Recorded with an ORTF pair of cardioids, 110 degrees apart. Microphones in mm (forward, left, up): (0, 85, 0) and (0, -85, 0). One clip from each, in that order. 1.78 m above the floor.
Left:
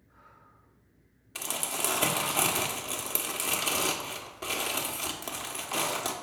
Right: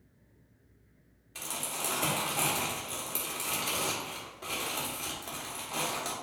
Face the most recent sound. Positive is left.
turn(degrees=40)